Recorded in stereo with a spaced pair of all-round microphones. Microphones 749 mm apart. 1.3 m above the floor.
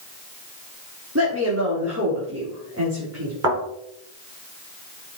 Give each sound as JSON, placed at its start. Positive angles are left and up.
{"t": 1.1, "sound": "a woman speaking", "side_deg": -20, "distance_m": 4.0}
{"t": 3.4, "sound": "a thud", "side_deg": -75, "distance_m": 5.0}